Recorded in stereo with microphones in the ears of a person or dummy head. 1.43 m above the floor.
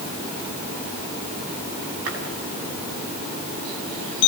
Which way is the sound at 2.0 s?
75° right (ahead or behind).